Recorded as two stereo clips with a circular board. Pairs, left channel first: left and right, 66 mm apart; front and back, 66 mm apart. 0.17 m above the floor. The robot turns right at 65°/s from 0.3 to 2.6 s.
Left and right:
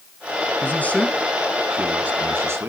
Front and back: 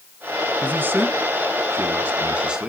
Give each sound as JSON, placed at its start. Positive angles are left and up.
{"t": 0.6, "sound": "a man speaking", "azimuth_deg": 130, "distance_m": 1.6}